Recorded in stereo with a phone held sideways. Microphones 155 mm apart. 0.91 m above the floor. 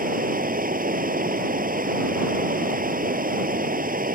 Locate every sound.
0.0 s running water: 65° right (ahead or behind)